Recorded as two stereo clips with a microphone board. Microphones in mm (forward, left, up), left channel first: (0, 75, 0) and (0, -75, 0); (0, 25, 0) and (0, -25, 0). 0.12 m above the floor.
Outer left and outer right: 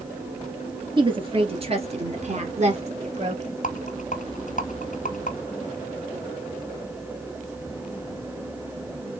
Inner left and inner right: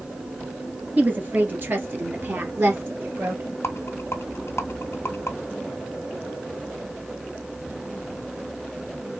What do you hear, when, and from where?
1.0 s a woman speaking: 35° right (ahead or behind), 2.5 m; by 3.6 s 50° right (ahead or behind), 2.5 m
3.6 s a rattle: 65° left (ahead or behind), 1.1 m